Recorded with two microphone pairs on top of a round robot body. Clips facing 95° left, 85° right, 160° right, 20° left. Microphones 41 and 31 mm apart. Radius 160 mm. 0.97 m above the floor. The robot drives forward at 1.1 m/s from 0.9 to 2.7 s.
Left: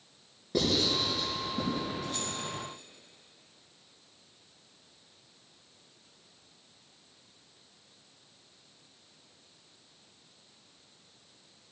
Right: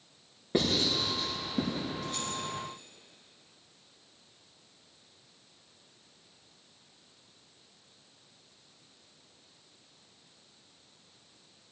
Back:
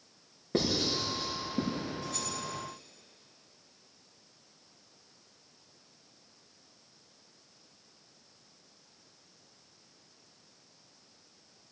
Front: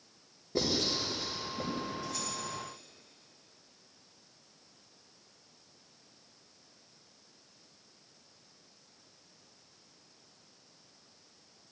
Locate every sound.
0.5 s writing: 140° right, 5.5 m; by 1.9 s 145° right, 6.5 m
2.0 s keys jangling: straight behind, 5 m